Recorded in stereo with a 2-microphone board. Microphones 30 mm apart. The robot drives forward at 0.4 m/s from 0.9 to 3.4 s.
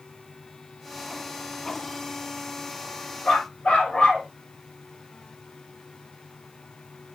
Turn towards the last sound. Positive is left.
turn(degrees=35)  # may be behind; listen again after turning